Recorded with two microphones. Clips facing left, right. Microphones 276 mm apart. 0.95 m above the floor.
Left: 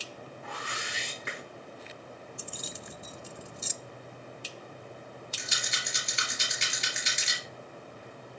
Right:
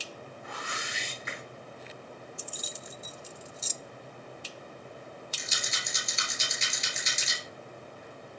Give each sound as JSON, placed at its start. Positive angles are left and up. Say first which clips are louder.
{"t": 0.4, "sound": "a whoosh", "louder": "even", "side_deg": 70, "distance_m": 4.0}
{"t": 2.4, "sound": "keys jangling", "louder": "left 1 dB", "side_deg": 65, "distance_m": 0.6}
{"t": 5.4, "sound": "a rattle", "louder": "even", "side_deg": 70, "distance_m": 3.0}